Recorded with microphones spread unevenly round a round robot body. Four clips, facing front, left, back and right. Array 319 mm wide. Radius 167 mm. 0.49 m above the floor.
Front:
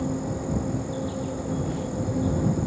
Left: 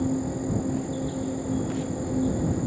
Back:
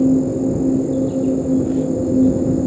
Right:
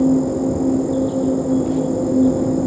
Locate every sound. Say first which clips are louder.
0.0 s an insect: right 11 dB, back 13 dB; 145° right